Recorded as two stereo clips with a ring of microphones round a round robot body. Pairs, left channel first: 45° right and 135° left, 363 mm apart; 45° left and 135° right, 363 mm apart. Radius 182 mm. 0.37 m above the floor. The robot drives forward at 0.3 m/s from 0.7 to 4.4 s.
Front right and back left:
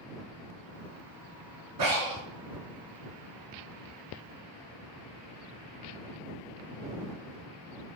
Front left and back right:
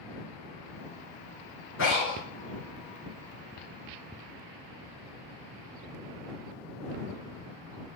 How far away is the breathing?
About 4.5 m.